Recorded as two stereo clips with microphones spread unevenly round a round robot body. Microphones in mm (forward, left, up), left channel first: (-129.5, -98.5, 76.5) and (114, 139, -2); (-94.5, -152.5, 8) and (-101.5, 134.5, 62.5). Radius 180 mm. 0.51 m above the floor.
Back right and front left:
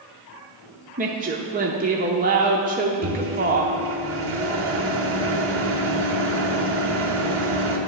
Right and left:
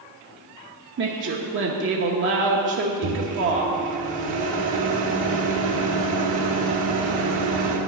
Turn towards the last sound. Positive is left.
turn(degrees=80)